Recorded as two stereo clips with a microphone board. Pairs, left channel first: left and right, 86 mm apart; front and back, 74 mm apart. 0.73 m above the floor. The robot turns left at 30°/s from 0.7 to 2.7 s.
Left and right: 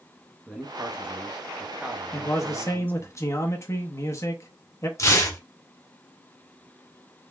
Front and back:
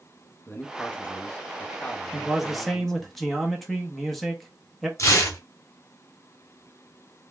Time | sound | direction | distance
0.5 | a man speaking | 15° right | 0.7 m
2.1 | a man speaking | 105° left | 0.8 m
5.0 | tearing paper | 40° left | 1.8 m